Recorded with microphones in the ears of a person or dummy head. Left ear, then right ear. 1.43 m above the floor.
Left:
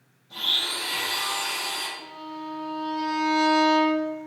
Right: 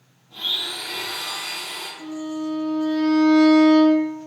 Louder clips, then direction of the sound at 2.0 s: Right 7 dB; 5° left (ahead or behind).